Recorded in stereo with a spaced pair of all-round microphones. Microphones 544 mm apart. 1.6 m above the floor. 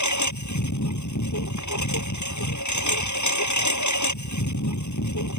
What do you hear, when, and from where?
0.0 s a lawn mower: 30° left (ahead or behind)